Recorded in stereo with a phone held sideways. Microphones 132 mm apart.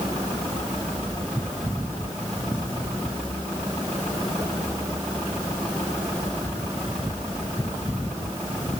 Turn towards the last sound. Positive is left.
No sound to turn to.